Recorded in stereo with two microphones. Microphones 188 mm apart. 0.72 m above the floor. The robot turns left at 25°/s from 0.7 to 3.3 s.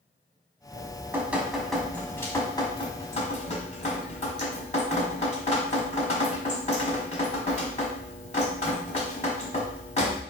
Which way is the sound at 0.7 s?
155° right.